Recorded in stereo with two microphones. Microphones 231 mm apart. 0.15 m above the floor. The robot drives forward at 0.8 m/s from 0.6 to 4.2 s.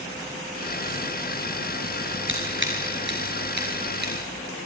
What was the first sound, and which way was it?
Scissors, 60° right (ahead or behind).